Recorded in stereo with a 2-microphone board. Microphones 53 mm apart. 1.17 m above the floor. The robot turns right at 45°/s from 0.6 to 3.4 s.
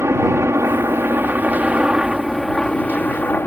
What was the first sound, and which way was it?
A helicopter, 80° right.